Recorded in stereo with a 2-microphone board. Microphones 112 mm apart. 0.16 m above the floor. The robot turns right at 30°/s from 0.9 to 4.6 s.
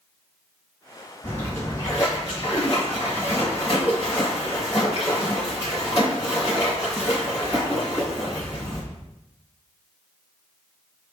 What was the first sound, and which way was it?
A splash, 20° left.